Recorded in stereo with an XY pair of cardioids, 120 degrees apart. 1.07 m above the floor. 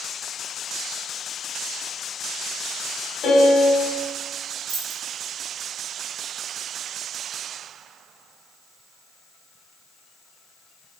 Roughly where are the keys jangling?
Ahead right.